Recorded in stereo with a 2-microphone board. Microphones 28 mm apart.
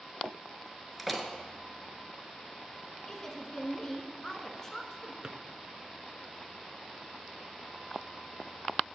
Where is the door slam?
5° right (ahead or behind), 1.1 m.